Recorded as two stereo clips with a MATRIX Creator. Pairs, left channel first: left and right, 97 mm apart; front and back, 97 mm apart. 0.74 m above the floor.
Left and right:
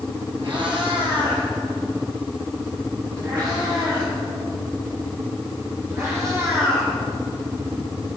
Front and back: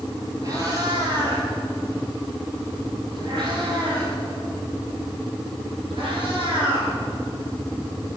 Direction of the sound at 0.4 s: 130° right.